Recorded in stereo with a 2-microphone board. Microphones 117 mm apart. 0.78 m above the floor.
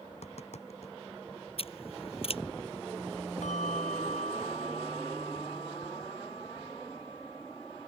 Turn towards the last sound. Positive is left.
turn(degrees=80)